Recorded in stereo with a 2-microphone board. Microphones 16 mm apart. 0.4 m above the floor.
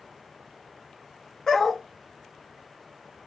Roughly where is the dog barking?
Left.